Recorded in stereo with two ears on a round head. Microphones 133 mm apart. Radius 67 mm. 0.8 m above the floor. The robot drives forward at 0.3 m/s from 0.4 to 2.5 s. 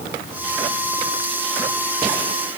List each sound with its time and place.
Only background noise.